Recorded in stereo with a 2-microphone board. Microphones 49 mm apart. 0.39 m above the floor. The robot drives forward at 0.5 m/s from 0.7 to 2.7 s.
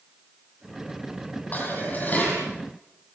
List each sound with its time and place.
1.5 s dishes clattering: 35° left (ahead or behind), 10 m